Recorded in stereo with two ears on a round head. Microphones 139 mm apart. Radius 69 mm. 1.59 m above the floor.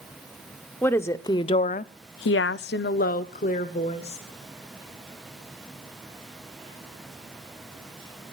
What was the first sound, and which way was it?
A woman speaking, 10° left (ahead or behind).